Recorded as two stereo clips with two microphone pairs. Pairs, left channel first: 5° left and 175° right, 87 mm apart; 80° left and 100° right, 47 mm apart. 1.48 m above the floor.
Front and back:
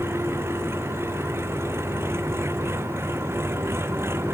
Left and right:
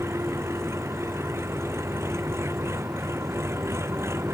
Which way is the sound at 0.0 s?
115° right.